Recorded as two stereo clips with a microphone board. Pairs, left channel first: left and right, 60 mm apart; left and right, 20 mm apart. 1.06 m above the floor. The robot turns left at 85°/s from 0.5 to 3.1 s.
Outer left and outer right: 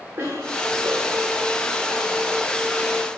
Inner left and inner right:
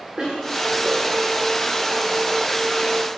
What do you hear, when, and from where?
0.2 s a cough: 35° right, 9 m; by 1.5 s 120° right, 9 m